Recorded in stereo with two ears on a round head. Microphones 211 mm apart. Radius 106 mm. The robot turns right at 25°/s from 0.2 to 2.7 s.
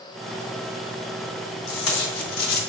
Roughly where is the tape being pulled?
Left.